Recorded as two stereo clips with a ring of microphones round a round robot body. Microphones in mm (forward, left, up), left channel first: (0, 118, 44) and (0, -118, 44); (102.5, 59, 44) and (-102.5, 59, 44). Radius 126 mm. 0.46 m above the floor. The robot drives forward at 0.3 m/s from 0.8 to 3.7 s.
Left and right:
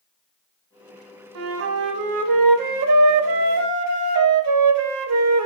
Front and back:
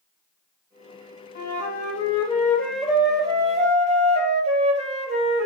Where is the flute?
50° right, 0.7 m; by 5.5 s 115° right, 0.6 m.